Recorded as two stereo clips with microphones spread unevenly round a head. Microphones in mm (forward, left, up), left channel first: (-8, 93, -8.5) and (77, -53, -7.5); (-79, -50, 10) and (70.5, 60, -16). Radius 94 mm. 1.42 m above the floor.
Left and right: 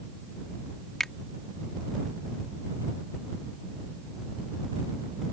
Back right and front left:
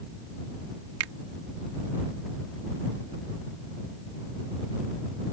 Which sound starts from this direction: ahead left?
A finger snap, at 1.0 s.